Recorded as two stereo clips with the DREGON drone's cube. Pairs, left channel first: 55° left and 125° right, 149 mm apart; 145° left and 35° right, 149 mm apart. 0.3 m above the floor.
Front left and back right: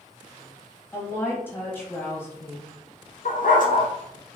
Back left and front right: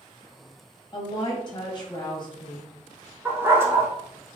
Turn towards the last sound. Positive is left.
turn(degrees=40)